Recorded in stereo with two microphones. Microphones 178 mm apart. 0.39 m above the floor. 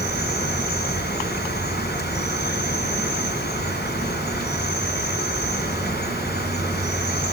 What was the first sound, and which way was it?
An insect, 70° left (ahead or behind).